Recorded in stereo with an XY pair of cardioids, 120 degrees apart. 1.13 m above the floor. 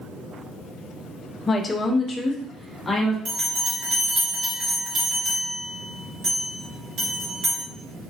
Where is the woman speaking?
30° left, 0.5 m; by 3.1 s 15° left, 1.5 m.